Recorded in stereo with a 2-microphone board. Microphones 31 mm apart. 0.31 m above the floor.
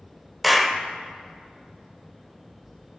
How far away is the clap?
About 0.6 m.